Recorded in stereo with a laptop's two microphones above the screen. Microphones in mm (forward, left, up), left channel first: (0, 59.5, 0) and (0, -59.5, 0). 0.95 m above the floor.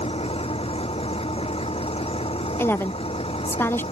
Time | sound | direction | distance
0.0 | an engine running | 55° left (ahead or behind) | ?
2.6 | a woman speaking | 20° left (ahead or behind) | ?